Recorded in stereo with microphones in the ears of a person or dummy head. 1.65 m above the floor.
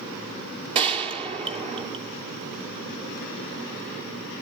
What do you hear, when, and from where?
0.8 s a gunshot: 30° right (ahead or behind), 2.5 m